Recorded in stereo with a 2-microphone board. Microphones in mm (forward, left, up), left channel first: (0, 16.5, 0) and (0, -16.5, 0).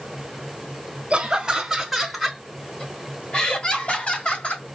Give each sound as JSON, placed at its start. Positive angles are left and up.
{"t": 1.1, "sound": "laughter", "side_deg": -25, "distance_m": 1.0}